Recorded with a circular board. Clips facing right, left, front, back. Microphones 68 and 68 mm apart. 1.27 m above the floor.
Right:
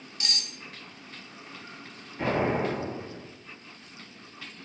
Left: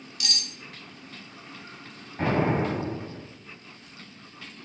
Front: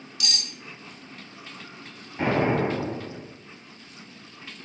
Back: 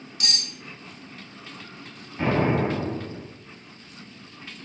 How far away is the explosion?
About 1.4 m.